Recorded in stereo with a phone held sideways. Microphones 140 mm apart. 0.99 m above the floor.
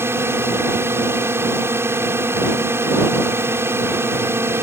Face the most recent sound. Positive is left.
turn(degrees=-15)  # may be behind; listen again after turning